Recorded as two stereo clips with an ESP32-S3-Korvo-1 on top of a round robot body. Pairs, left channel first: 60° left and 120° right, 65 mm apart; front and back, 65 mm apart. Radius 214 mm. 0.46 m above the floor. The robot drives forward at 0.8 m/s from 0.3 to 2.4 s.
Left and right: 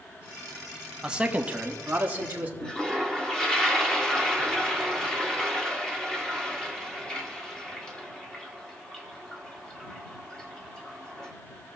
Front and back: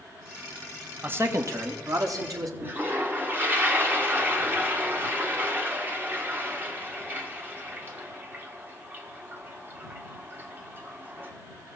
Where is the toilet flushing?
135° left, 1.7 m.